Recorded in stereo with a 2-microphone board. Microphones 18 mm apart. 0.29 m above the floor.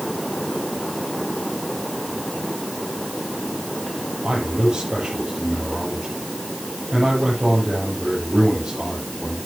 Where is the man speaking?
55° right (ahead or behind), 7.5 m.